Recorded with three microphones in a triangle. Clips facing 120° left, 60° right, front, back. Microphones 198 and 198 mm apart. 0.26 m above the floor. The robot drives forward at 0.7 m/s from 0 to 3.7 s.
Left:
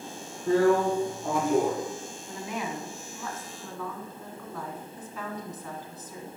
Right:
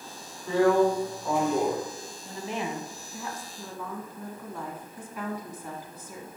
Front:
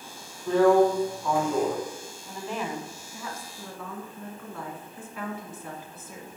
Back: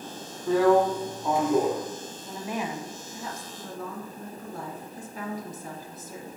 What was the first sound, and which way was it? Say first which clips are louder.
A drill: even, front 1 dB; 95° left.